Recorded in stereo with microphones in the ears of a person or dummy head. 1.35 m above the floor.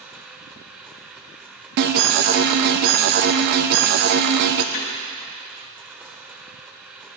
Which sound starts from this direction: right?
An alarm, at 1.8 s.